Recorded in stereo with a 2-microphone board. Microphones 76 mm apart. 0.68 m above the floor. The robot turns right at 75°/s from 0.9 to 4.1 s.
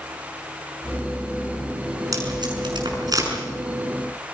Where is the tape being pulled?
45° right (ahead or behind), 6 m.